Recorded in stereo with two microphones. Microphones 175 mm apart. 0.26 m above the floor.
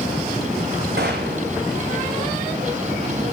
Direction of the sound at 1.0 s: 70° right (ahead or behind).